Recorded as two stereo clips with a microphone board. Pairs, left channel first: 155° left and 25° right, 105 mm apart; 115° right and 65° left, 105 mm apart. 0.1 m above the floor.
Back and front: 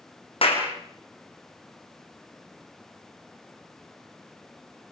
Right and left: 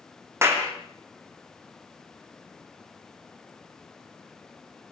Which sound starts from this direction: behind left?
A clap, at 0.4 s.